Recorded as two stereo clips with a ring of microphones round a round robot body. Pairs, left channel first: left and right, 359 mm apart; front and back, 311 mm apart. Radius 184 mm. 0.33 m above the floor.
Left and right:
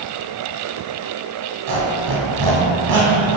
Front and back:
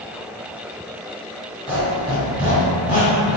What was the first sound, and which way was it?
A squeak, 75° right.